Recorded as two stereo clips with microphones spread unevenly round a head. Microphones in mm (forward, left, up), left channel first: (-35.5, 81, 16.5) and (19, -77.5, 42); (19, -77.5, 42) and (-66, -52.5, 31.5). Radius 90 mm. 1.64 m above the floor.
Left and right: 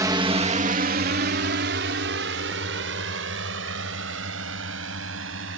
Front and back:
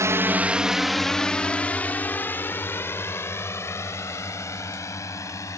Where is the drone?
145° right; by 5.6 s 65° right.